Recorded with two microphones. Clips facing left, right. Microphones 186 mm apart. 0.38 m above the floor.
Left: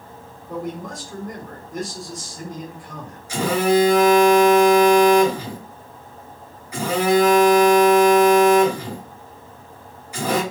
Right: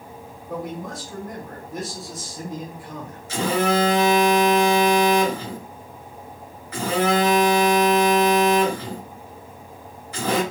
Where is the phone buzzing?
10° left (ahead or behind), 2.5 m.